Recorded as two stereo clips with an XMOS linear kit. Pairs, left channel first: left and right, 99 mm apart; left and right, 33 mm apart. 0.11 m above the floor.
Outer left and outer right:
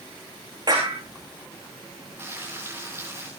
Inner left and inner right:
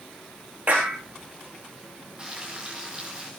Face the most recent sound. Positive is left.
turn(degrees=-25)  # may be behind; listen again after turning